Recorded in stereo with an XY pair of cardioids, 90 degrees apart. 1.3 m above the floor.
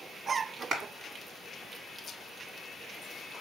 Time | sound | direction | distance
0.7 | a clap | 60° right | 1.8 m